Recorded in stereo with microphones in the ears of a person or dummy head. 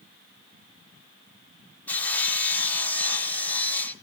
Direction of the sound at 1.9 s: 10° left (ahead or behind).